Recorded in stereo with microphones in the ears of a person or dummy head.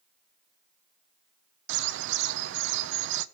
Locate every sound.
1.7 s a bird: 70° right (ahead or behind), 0.9 m